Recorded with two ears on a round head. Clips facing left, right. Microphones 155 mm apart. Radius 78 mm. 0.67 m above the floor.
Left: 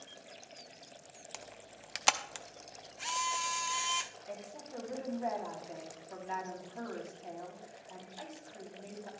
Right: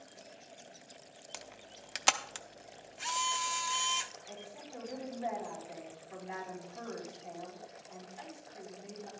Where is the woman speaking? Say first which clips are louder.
Left 3 dB; 60° left (ahead or behind), 5.5 m.